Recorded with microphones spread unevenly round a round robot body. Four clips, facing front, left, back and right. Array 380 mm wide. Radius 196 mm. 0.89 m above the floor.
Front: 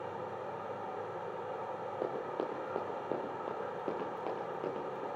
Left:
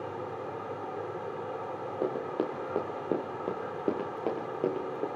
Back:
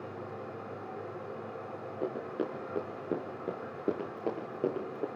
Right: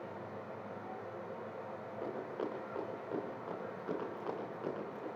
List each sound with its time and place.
0.0 s running water: 100° left, 2.5 m
2.0 s running footsteps: 105° left, 6 m; by 5.1 s 125° left, 6 m